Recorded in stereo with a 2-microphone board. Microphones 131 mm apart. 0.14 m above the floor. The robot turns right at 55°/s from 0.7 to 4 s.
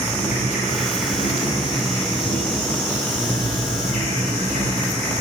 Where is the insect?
75° left, 4 m; by 5.2 s 100° right, 4 m.